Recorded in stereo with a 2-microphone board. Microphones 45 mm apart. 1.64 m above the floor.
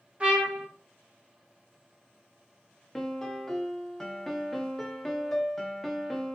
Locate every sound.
0.2 s a trumpet: 25° right (ahead or behind), 1.0 m
3.0 s a piano: 10° left (ahead or behind), 0.6 m